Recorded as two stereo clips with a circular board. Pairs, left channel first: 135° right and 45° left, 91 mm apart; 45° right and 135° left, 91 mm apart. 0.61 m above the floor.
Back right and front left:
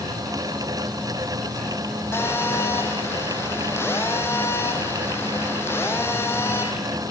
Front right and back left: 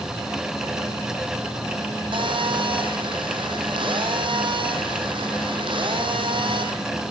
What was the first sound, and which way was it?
A phone buzzing, 160° left.